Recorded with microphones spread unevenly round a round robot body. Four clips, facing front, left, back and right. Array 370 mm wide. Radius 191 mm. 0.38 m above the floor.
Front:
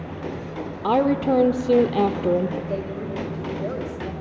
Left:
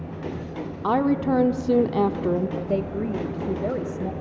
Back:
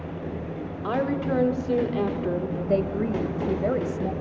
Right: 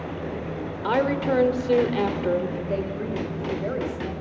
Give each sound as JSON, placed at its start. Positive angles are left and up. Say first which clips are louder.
{"t": 0.8, "sound": "a woman speaking", "louder": "left 2 dB, front 6 dB", "azimuth_deg": 35, "distance_m": 1.0}
{"t": 2.7, "sound": "a woman speaking", "louder": "left 2 dB, back 4 dB", "azimuth_deg": 145, "distance_m": 1.6}